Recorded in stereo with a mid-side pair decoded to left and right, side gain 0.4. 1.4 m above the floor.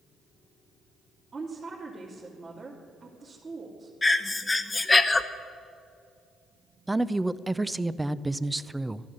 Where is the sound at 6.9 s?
10° right, 0.6 m.